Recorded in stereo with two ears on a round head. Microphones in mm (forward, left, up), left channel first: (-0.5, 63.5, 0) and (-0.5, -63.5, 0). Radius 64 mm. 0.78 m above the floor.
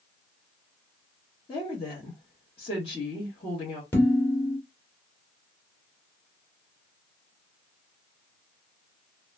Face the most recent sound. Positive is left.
turn(degrees=15)  # may be behind; listen again after turning